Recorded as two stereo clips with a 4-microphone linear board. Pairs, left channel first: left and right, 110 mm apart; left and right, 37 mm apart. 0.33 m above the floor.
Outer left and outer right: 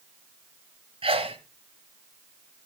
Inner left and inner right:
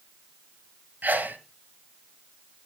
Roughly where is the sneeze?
Right.